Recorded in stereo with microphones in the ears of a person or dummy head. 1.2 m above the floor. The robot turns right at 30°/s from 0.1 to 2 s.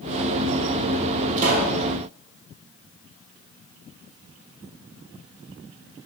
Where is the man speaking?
I don't hear a man speaking.